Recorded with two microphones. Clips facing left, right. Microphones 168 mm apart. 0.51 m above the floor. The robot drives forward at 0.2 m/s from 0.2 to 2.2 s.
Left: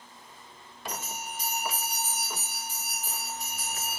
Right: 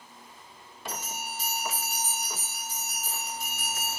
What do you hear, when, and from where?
0.9 s a bell: 15° left (ahead or behind), 1.8 m